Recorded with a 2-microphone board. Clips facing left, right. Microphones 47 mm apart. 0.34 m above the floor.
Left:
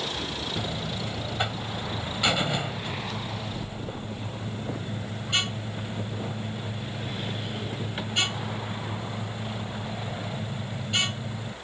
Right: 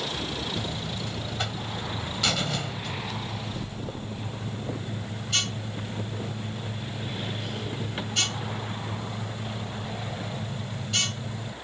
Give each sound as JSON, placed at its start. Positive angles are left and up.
{"t": 0.6, "sound": "a buzzer", "side_deg": 15}